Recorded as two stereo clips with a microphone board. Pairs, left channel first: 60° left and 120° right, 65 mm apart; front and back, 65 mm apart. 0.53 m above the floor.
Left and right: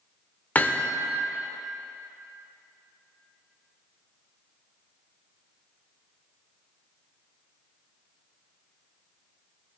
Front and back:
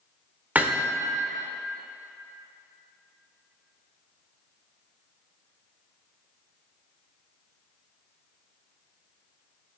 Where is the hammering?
120° left, 0.9 m.